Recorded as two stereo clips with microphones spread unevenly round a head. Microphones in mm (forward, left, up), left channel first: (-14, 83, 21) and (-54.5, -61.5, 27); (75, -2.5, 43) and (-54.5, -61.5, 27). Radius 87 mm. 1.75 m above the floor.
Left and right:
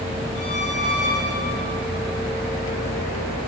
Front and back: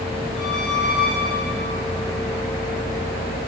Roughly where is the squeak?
Left.